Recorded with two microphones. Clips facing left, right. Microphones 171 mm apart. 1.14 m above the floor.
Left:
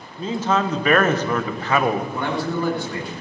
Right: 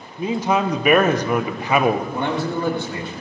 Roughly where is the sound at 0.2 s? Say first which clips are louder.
Right 2 dB; centre.